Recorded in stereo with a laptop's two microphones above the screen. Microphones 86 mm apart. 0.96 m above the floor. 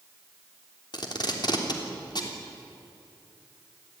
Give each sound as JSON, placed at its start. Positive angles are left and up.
{"t": 0.9, "sound": "tape being pulled", "side_deg": 55, "distance_m": 3.0}